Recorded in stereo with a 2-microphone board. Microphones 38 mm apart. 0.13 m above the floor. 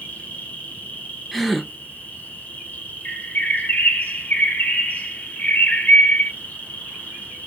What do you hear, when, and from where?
0.0 s an insect: 45° left (ahead or behind), 1.0 m
1.3 s a gasp: centre (ahead or behind), 0.6 m
3.0 s a bird: 40° left (ahead or behind), 1.2 m